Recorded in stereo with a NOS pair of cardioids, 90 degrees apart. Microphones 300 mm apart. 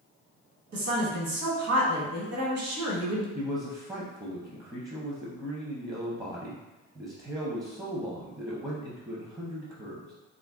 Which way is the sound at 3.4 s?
10° right.